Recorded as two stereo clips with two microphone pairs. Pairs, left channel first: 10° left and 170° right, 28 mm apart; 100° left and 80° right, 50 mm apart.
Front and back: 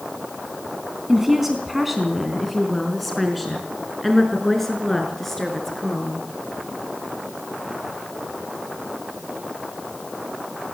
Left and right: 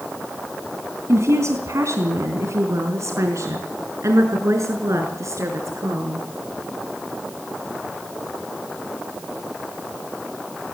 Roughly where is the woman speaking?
Right.